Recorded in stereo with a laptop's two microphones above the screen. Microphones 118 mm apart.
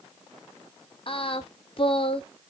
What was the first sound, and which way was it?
Singing, 50° left (ahead or behind).